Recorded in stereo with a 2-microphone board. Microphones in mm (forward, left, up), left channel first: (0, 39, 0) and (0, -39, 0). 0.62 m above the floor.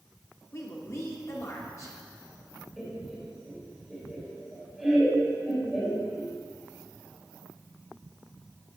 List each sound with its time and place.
0.5 s a woman speaking: 45° left (ahead or behind), 1.5 m
2.8 s laughter: centre (ahead or behind), 3 m